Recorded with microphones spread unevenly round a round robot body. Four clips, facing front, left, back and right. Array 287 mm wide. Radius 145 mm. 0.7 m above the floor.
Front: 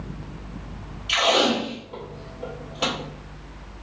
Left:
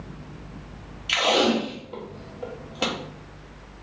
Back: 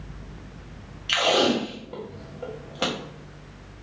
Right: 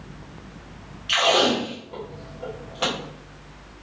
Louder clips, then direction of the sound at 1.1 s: Right 1 dB, front 1 dB; 155° left.